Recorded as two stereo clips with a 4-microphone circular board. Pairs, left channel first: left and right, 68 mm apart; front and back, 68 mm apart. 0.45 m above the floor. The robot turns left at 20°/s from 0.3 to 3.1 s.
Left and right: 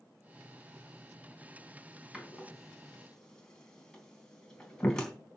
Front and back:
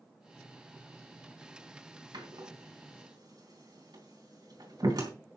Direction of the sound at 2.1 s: 175° right.